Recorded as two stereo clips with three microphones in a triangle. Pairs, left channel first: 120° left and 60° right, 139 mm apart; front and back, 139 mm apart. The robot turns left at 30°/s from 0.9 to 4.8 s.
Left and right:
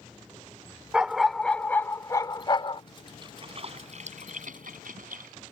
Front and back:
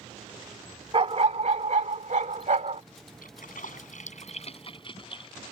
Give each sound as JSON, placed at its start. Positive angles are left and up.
{"t": 0.9, "sound": "a dog barking", "azimuth_deg": -140}
{"t": 3.2, "sound": "a splash", "azimuth_deg": -5}